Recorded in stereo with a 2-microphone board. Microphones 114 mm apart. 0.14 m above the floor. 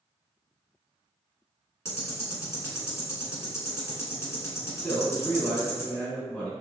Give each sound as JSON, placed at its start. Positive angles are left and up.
{"t": 1.9, "sound": "ticking", "side_deg": 25, "distance_m": 1.2}
{"t": 4.8, "sound": "a man speaking", "side_deg": 10, "distance_m": 1.3}